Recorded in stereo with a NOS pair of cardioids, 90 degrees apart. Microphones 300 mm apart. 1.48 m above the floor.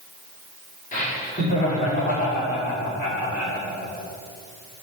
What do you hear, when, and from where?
0.9 s laughter: 25° left, 4.5 m; by 3.7 s 30° left, 6 m